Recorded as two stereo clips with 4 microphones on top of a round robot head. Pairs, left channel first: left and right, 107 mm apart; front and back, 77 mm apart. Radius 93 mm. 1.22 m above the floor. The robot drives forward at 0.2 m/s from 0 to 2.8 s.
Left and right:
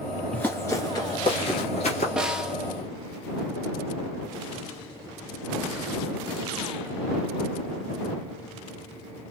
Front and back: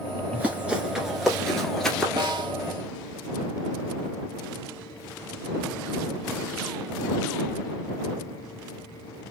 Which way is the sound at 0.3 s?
145° left.